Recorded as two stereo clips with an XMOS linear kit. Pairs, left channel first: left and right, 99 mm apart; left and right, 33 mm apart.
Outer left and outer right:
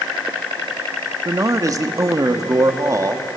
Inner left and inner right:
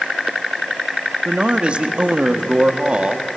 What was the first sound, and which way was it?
A man speaking, 35° right (ahead or behind).